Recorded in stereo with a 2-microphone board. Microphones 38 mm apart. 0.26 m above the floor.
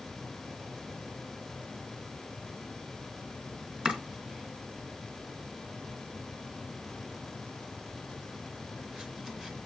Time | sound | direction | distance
3.9 | chopping | 25° right (ahead or behind) | 2.5 m